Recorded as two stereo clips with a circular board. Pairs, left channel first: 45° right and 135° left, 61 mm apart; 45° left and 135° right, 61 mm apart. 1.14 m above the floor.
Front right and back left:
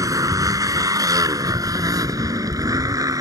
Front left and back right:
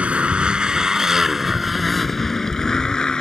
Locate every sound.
0.0 s a motorcycle: 155° left; by 3.2 s 120° left